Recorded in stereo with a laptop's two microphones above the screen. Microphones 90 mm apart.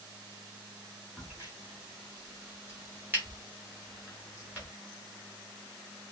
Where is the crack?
20° right (ahead or behind), 1.4 m.